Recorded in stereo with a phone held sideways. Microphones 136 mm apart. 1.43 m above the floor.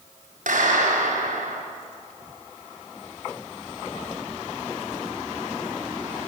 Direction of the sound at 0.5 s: 70° right (ahead or behind).